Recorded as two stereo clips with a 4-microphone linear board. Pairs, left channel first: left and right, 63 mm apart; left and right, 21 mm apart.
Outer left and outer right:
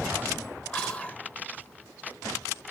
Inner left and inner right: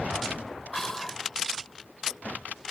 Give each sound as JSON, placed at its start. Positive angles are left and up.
{"t": 0.7, "sound": "whispering", "side_deg": 15, "distance_m": 0.9}